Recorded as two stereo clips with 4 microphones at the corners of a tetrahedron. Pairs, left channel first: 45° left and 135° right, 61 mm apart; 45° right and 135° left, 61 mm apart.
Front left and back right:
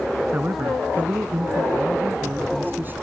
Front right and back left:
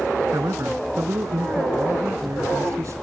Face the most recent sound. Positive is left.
turn(degrees=170)